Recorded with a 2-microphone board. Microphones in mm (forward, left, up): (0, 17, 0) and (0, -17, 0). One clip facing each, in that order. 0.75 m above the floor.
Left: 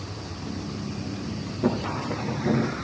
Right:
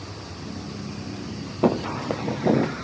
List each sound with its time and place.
1.6 s footsteps: 60° right (ahead or behind), 1.3 m; by 2.8 s 45° right (ahead or behind), 1.1 m